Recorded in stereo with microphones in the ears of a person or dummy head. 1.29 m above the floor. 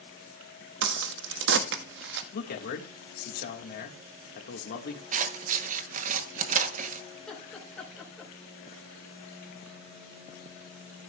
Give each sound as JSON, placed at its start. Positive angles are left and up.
{"t": 0.8, "sound": "a crack", "side_deg": -70, "distance_m": 1.1}
{"t": 2.3, "sound": "a man speaking", "side_deg": 55, "distance_m": 1.6}
{"t": 5.1, "sound": "scissors", "side_deg": -45, "distance_m": 0.9}
{"t": 7.1, "sound": "laughter", "side_deg": 5, "distance_m": 4.0}